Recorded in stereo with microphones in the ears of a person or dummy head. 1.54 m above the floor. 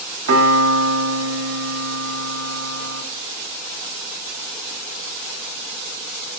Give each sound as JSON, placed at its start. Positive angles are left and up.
{"t": 0.3, "sound": "a piano", "side_deg": -85, "distance_m": 1.5}